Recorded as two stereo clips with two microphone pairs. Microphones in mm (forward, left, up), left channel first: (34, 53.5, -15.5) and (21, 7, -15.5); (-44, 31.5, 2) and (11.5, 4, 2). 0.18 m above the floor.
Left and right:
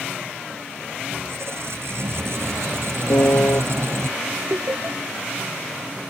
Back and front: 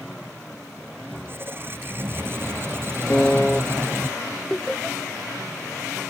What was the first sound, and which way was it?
A squeak, 80° right.